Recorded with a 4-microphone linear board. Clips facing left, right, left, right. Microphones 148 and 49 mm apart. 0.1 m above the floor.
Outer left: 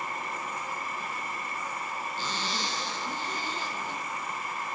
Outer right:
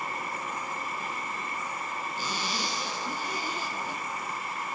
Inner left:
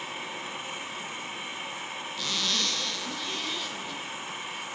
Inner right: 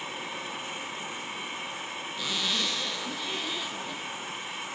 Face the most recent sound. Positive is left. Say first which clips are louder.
# outer right 1 dB, even
turn(degrees=-10)  # may be behind; listen again after turning